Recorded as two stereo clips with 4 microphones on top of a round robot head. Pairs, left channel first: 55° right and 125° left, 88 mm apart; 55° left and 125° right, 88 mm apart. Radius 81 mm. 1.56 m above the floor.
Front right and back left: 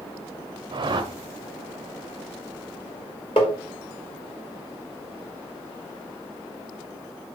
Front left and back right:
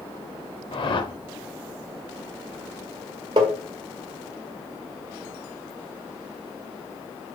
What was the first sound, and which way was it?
A whoosh, 85° left.